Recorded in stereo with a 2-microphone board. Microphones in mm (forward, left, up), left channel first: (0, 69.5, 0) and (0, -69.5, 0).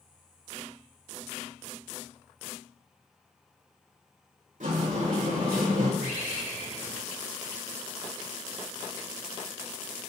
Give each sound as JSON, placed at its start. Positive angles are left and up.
{"t": 4.6, "sound": "a sliding door", "side_deg": -75, "distance_m": 1.9}
{"t": 6.0, "sound": "a bird", "side_deg": 75, "distance_m": 1.4}